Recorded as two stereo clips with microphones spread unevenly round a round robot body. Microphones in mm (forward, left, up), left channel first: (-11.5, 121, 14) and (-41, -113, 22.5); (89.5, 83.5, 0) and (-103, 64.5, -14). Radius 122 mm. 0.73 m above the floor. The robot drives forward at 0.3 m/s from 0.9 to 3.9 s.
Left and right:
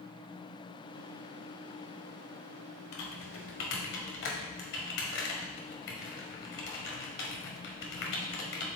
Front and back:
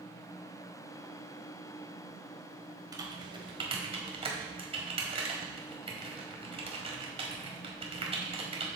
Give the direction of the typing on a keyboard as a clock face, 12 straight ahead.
8 o'clock.